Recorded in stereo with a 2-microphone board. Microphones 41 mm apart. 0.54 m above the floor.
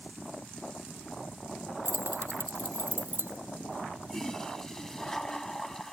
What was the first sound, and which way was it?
Keys jangling, 60° right (ahead or behind).